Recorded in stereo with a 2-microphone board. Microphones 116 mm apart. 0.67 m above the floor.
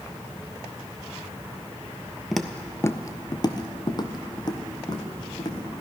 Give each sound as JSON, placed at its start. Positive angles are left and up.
{"t": 2.3, "sound": "footsteps", "side_deg": 0, "distance_m": 0.9}